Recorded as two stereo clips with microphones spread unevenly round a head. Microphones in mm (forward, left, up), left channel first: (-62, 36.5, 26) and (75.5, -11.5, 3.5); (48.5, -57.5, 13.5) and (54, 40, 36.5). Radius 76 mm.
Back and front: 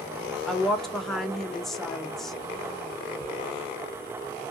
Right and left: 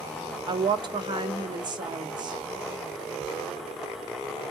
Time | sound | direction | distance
0.5 | a woman speaking | 60° left | 0.9 m
3.2 | ticking | 50° right | 3.5 m